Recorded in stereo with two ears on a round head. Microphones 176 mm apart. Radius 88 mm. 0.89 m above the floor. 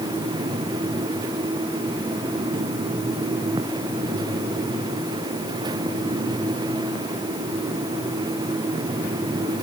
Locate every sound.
Only background noise.